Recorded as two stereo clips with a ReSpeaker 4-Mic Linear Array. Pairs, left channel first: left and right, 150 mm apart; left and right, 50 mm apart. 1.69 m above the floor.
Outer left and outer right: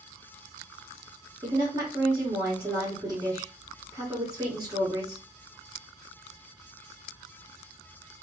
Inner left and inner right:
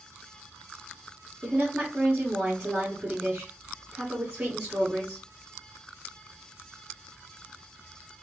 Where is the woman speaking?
20° right (ahead or behind), 1.7 m.